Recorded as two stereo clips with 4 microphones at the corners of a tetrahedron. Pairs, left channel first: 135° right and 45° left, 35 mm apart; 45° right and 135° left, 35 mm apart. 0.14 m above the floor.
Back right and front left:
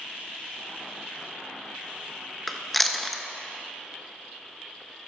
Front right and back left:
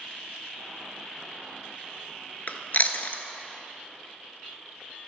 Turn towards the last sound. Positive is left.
turn(degrees=-50)